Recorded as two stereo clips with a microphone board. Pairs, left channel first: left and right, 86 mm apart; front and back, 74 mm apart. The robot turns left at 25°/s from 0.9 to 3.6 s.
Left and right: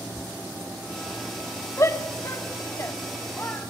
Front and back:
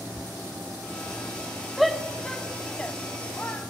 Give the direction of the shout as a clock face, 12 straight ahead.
9 o'clock.